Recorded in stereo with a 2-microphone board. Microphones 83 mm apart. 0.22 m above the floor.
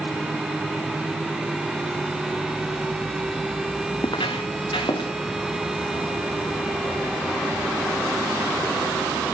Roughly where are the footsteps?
Left.